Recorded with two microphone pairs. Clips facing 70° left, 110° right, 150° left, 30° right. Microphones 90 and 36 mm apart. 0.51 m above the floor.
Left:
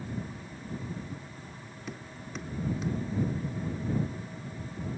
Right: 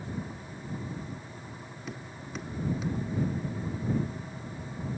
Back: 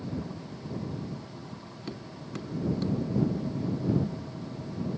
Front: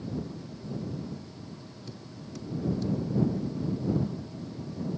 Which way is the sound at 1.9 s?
155° left.